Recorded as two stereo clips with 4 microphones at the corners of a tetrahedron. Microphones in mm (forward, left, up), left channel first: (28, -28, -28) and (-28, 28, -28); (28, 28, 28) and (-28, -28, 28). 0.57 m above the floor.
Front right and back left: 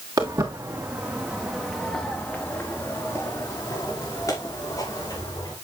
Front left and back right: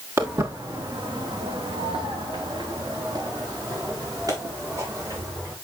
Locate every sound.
0.2 s footsteps: 175° left, 2.5 m; by 5.5 s 85° right, 6.5 m